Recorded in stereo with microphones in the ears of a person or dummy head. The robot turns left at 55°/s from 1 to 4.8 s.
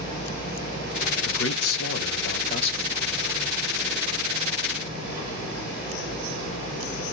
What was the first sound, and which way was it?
A man speaking, 115° left.